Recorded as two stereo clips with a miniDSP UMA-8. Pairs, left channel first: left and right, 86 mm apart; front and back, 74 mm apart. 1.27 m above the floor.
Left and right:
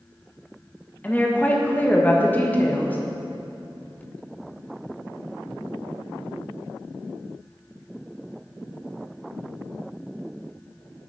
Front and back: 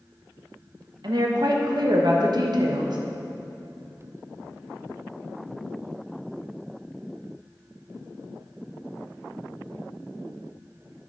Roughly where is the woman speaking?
Behind.